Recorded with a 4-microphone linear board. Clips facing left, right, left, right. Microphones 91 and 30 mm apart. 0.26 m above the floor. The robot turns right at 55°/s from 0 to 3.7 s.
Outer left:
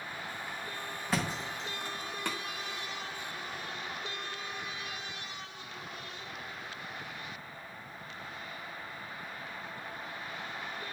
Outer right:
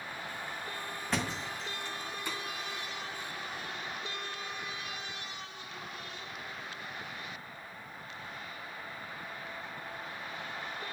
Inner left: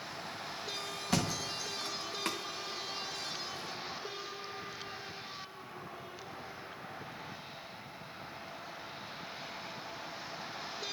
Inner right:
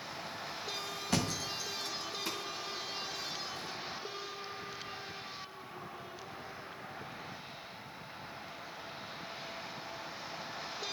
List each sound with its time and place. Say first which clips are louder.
1.1 s a thud: outer left 1 dB, inner left 1 dB; centre (ahead or behind), 1.4 m; by 2.4 s 70° left (ahead or behind), 1.4 m